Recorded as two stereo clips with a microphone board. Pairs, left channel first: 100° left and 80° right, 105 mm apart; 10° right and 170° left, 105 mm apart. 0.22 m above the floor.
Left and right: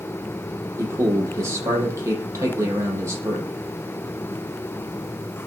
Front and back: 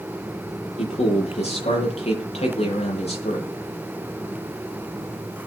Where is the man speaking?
15° right, 7.5 m.